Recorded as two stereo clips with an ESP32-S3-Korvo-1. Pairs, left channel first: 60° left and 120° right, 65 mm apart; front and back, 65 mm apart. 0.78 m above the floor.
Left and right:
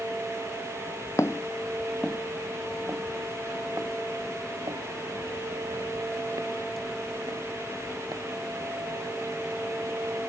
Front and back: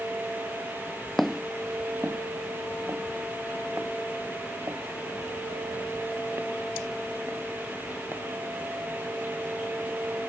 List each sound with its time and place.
1.2 s footsteps: 85° left; by 8.2 s 130° right